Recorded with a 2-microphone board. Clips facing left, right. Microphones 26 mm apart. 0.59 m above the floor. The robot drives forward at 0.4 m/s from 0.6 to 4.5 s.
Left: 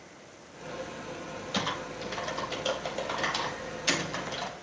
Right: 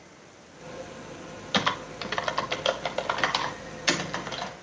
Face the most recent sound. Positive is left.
turn(degrees=-25)  # may be behind; listen again after turning